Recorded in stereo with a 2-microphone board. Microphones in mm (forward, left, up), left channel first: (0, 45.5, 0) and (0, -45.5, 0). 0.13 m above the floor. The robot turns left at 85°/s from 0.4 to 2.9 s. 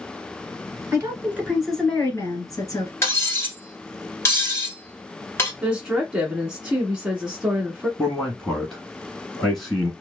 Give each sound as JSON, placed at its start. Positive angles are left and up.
{"t": 0.9, "sound": "a woman speaking", "azimuth_deg": -115, "distance_m": 1.3}
{"t": 3.0, "sound": "cutlery clinking", "side_deg": 30, "distance_m": 1.0}
{"t": 5.6, "sound": "a woman speaking", "side_deg": -10, "distance_m": 1.4}
{"t": 8.0, "sound": "a man speaking", "side_deg": 5, "distance_m": 1.2}